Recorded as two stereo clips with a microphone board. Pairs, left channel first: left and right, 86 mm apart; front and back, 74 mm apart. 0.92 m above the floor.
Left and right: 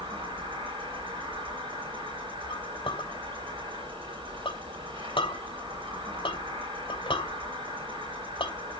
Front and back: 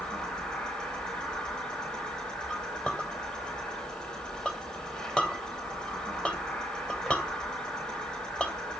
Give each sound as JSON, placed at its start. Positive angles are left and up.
{"t": 0.0, "sound": "an insect", "azimuth_deg": -80, "distance_m": 8.5}
{"t": 2.5, "sound": "a clink", "azimuth_deg": 80, "distance_m": 2.5}